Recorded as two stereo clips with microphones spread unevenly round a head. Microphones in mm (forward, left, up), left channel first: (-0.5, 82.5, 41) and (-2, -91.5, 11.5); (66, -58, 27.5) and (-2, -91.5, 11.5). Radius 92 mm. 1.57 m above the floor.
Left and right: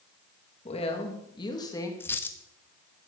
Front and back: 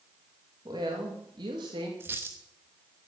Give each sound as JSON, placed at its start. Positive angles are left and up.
{"t": 0.7, "sound": "a woman speaking", "azimuth_deg": 150, "distance_m": 3.0}
{"t": 2.0, "sound": "a dropped coin", "azimuth_deg": 135, "distance_m": 0.9}